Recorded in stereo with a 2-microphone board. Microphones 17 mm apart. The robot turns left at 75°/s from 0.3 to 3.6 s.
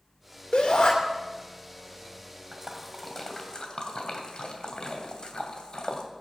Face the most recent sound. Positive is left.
turn(degrees=50)  # may be behind; listen again after turning